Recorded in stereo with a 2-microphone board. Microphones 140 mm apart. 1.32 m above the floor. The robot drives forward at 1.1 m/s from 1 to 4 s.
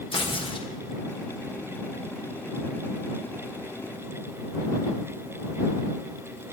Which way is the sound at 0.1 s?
40° left (ahead or behind).